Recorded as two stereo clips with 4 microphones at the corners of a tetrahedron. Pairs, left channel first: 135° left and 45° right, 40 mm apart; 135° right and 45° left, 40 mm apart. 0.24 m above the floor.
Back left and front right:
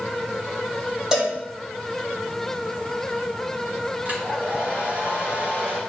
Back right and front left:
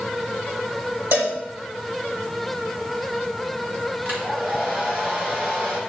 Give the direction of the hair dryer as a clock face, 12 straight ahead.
12 o'clock.